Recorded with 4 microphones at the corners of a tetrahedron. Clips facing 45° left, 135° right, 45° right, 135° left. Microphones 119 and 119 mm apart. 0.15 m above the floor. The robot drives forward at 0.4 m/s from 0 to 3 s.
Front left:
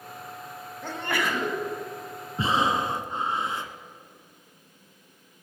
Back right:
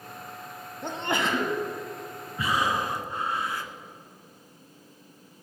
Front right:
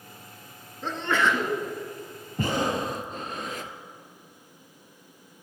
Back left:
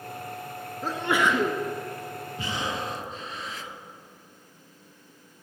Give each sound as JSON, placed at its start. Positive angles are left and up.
{"t": 0.8, "sound": "a sneeze", "azimuth_deg": -160, "distance_m": 1.2}
{"t": 2.4, "sound": "breathing", "azimuth_deg": -15, "distance_m": 1.0}